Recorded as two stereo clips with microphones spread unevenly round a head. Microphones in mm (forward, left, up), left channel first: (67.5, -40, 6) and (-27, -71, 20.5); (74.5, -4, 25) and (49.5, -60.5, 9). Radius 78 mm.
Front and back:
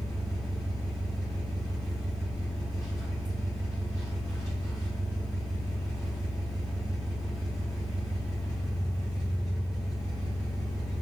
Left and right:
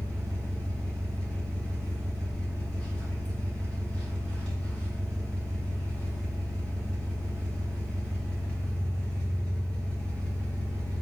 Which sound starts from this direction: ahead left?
An engine running, at 0.0 s.